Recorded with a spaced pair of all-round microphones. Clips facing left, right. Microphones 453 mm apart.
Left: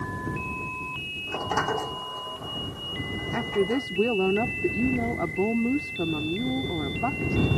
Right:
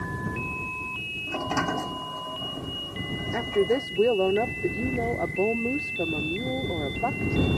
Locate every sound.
1.3 s a sliding door: 50° right (ahead or behind)
3.3 s a woman speaking: 25° left (ahead or behind)